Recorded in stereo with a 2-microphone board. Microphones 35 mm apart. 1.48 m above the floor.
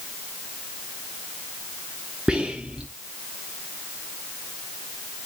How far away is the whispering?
About 0.7 m.